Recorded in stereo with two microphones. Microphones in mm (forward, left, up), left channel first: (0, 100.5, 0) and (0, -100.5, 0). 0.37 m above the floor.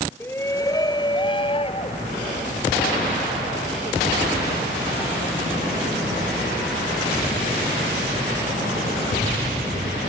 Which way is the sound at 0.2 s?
10° left (ahead or behind).